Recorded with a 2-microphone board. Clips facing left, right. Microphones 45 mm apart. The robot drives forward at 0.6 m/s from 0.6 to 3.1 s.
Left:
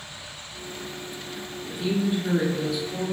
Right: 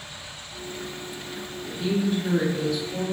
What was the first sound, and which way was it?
A woman speaking, 10° left (ahead or behind).